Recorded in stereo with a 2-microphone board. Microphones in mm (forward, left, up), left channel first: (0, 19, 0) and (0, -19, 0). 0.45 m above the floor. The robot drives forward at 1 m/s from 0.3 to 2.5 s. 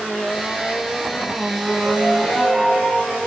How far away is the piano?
About 4.5 m.